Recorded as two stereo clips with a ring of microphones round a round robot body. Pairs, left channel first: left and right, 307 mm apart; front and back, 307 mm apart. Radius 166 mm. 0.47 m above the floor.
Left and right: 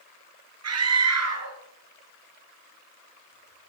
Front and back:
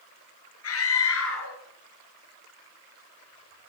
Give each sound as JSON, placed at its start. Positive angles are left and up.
{"t": 0.6, "sound": "a scream", "azimuth_deg": -50, "distance_m": 7.5}